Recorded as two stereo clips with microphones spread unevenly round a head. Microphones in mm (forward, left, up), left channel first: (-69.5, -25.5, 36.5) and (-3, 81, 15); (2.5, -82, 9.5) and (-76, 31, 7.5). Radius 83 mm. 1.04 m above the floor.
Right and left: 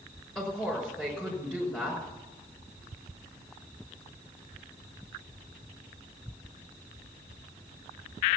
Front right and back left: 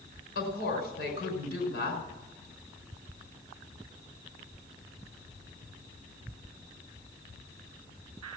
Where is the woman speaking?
35° right, 5.5 m.